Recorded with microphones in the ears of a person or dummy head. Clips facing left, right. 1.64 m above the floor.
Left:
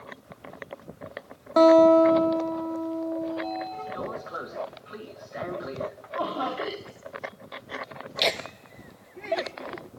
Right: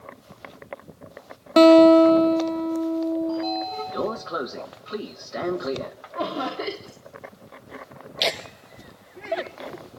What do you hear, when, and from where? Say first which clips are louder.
1.6 s a guitar: right 4 dB; 40° right (ahead or behind), 1.8 m
3.3 s a sliding door: right 5 dB; 55° right (ahead or behind), 1.7 m
6.2 s laughter: right 2 dB; 30° right (ahead or behind), 3.5 m
8.2 s laughter: even; centre (ahead or behind), 1.1 m